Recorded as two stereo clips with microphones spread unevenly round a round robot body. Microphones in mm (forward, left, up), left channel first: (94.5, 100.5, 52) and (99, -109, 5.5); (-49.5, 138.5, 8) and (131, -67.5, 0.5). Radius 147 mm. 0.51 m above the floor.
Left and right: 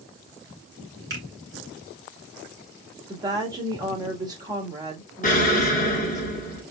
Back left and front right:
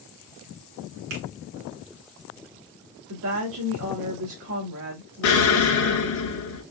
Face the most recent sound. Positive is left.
turn(degrees=150)